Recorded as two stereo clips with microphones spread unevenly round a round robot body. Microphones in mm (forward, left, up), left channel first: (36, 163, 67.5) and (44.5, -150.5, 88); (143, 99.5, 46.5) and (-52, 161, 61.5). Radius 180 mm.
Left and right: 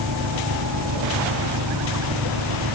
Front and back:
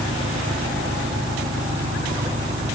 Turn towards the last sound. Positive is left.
turn(degrees=-130)